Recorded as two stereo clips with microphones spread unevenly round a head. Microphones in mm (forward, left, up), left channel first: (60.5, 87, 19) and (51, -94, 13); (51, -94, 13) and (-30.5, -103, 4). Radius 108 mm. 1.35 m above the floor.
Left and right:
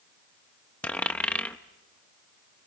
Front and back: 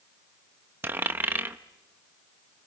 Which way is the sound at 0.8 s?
150° left.